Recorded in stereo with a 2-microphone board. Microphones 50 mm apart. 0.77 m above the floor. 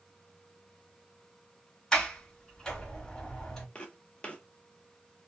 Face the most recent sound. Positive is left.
turn(degrees=25)  # may be behind; listen again after turning